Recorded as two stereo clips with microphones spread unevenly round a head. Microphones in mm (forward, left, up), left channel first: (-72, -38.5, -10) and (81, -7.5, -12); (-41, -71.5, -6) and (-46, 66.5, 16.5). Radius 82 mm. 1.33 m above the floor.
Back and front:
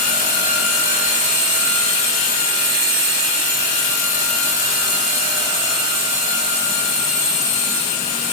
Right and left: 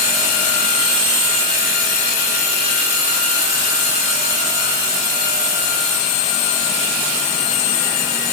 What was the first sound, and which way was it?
Only background noise.